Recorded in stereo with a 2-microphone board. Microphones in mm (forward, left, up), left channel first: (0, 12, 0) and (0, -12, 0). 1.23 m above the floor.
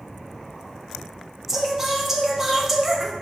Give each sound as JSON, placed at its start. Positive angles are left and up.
{"t": 1.5, "sound": "singing", "side_deg": -10, "distance_m": 0.6}